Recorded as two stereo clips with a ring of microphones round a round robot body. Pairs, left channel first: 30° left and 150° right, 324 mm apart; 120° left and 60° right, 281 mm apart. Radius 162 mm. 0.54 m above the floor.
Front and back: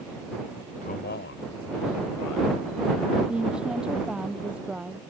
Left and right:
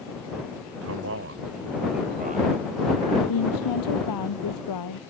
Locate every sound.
0.8 s a man speaking: 35° right; by 3.2 s 10° left
3.3 s a woman speaking: 125° left